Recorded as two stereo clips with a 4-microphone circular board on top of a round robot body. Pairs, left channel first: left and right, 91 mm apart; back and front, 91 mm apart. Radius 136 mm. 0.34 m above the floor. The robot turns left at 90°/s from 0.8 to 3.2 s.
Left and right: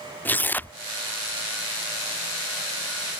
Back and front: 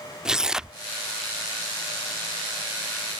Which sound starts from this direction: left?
Tearing paper, at 0.2 s.